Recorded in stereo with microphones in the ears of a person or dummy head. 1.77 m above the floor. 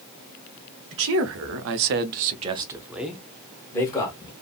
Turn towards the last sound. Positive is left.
turn(degrees=20)  # may be behind; listen again after turning